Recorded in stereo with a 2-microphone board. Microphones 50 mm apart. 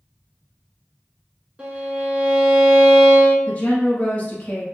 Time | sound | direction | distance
1.6 | a violin | 30° right (ahead or behind) | 1.2 m
3.5 | a woman speaking | 30° left (ahead or behind) | 1.1 m